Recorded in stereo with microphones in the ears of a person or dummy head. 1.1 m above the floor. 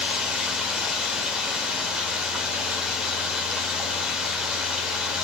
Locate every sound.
0.0 s running water: centre (ahead or behind), 1.7 m